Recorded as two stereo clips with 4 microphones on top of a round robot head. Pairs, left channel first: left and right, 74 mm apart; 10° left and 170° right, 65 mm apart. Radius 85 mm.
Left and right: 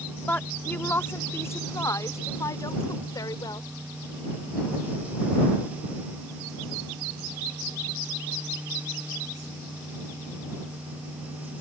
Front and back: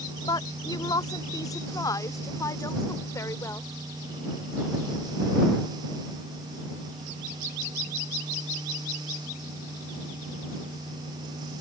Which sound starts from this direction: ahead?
A woman speaking, at 0.3 s.